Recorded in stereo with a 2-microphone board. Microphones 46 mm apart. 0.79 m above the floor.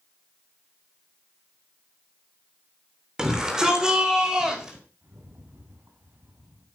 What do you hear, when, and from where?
3.2 s a shout: 15° right (ahead or behind), 3 m
5.0 s a rattle: 60° right (ahead or behind), 4.5 m